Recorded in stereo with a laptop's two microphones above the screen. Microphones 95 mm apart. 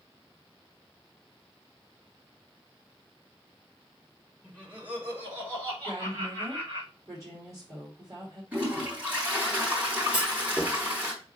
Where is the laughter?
15° right (ahead or behind), 3.5 m; by 6.8 s 35° right (ahead or behind), 5 m.